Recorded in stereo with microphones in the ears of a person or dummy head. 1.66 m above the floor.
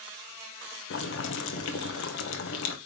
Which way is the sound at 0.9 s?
65° left (ahead or behind).